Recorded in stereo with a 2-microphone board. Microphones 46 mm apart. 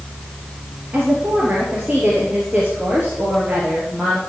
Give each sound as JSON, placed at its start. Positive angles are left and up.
{"t": 0.9, "sound": "a woman speaking", "side_deg": -35, "distance_m": 3.5}